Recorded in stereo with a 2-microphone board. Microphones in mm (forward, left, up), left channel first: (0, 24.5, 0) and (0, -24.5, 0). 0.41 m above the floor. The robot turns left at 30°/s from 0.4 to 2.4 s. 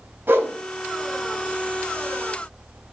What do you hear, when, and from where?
0.3 s a whoosh: 40° right (ahead or behind), 3 m; by 0.5 s 45° right (ahead or behind), 3 m